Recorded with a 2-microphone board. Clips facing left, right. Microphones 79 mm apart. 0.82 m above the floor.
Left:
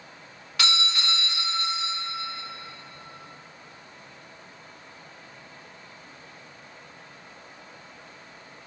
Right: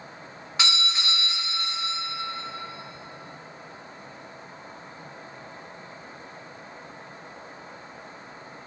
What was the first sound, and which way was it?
A doorbell, 20° right (ahead or behind).